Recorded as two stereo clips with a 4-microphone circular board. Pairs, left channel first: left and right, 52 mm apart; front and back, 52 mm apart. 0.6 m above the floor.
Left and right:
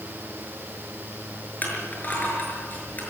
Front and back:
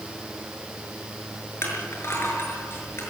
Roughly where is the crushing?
Ahead left.